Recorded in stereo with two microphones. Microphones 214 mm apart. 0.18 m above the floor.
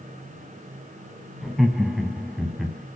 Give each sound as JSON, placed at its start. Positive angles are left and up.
{"t": 1.4, "sound": "laughter", "side_deg": 0, "distance_m": 1.0}